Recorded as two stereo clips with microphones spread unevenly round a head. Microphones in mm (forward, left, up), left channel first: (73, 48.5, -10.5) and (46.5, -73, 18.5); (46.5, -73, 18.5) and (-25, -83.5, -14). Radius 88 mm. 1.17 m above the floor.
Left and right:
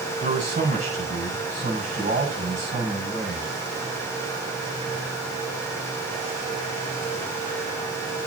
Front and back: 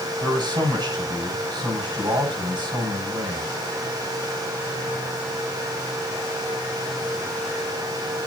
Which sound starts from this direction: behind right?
A man speaking, at 0.2 s.